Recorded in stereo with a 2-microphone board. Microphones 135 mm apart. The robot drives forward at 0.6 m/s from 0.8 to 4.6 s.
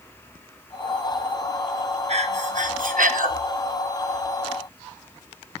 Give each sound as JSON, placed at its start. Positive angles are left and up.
{"t": 2.1, "sound": "breathing", "side_deg": -55, "distance_m": 1.2}